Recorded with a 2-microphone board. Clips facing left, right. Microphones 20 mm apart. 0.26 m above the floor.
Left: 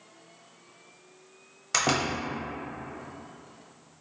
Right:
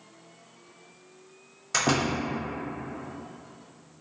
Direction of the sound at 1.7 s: 15° left (ahead or behind).